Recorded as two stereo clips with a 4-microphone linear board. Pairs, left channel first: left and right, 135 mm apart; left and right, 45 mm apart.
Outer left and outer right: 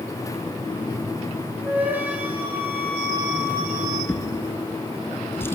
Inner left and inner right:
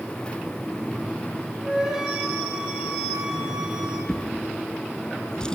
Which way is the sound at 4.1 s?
15° left (ahead or behind).